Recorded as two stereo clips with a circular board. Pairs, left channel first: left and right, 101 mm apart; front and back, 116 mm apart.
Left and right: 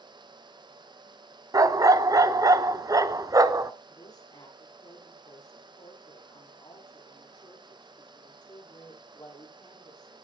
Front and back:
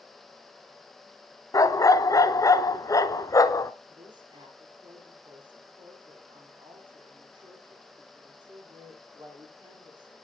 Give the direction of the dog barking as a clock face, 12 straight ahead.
2 o'clock.